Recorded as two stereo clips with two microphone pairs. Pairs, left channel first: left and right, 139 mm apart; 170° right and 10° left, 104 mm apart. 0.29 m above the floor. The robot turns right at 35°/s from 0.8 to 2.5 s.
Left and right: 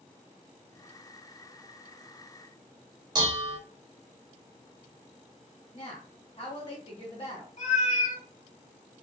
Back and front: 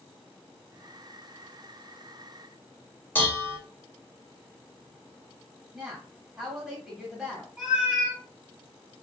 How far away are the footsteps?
I don't hear footsteps.